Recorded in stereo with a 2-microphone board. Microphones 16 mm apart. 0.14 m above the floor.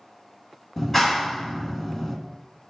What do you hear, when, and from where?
0.8 s a clap: 20° left (ahead or behind), 1.2 m